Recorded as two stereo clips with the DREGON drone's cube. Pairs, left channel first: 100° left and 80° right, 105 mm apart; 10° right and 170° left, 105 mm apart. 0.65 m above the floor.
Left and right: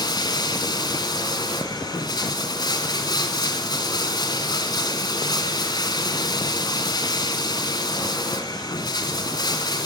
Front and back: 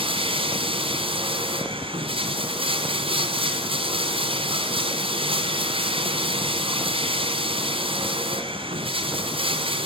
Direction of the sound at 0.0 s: 150° left.